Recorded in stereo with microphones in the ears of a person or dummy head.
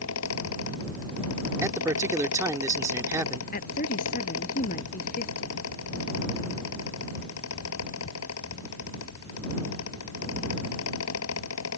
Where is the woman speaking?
50° left (ahead or behind).